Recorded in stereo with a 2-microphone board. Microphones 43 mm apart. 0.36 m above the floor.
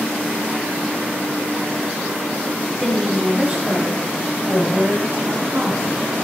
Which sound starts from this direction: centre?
A woman speaking, at 2.8 s.